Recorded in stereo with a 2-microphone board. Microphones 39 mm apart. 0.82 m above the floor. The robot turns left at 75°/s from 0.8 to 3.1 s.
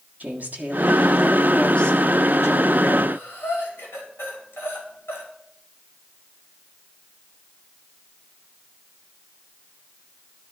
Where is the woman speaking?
135° right, 1.5 m; by 3.0 s 65° left, 1.5 m.